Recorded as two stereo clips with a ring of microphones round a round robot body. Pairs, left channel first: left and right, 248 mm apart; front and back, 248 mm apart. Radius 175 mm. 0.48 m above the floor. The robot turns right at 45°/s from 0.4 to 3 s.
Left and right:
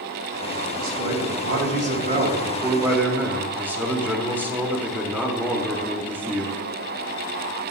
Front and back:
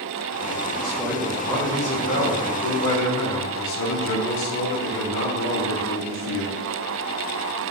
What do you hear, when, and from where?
0.8 s a man speaking: 110° right, 1.1 m; by 6.6 s 10° right, 1.1 m